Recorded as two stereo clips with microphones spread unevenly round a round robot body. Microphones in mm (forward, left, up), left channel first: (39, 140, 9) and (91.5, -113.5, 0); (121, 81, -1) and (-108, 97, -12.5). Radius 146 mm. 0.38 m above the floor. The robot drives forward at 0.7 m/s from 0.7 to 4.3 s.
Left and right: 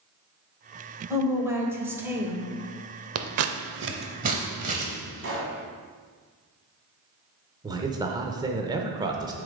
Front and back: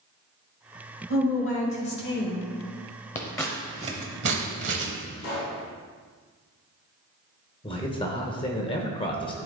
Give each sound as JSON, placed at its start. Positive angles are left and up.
{"t": 1.1, "sound": "a woman speaking", "azimuth_deg": 0, "distance_m": 1.9}
{"t": 3.1, "sound": "scissors", "azimuth_deg": -70, "distance_m": 0.6}
{"t": 5.2, "sound": "a pop", "azimuth_deg": -45, "distance_m": 2.5}
{"t": 7.6, "sound": "a man speaking", "azimuth_deg": -40, "distance_m": 0.8}